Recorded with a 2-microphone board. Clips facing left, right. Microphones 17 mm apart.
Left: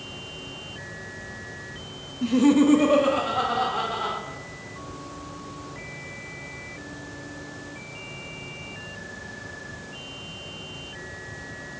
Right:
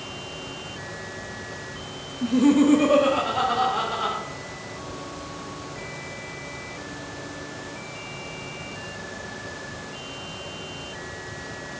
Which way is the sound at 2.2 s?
20° left (ahead or behind).